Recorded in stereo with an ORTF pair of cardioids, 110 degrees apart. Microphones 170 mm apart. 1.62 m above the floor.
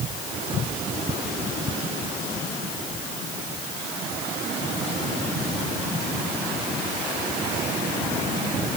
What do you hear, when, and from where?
Only background noise.